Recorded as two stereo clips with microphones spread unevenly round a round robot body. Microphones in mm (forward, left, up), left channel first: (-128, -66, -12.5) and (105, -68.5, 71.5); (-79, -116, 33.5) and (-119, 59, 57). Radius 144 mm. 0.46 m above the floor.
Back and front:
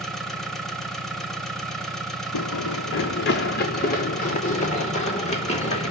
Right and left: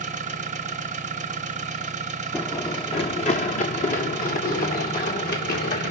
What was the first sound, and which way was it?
An engine running, 125° left.